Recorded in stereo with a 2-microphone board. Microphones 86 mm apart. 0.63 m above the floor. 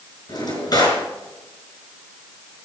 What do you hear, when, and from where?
0.3 s a drawer: 55° left (ahead or behind), 5 m